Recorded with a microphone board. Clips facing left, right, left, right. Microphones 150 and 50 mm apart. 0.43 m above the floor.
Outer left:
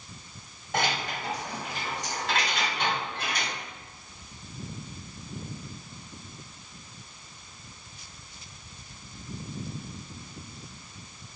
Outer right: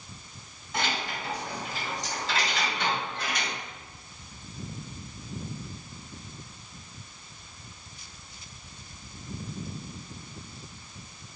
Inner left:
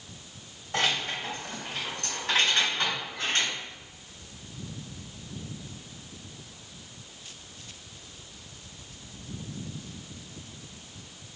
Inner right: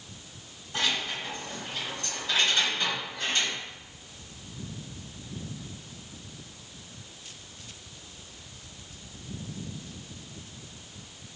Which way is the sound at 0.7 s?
70° left (ahead or behind).